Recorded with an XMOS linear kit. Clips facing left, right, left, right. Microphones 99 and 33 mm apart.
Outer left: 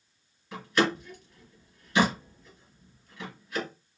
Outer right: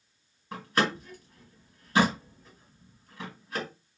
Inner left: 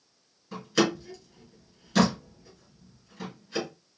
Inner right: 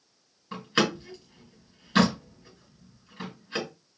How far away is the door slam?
About 2.5 m.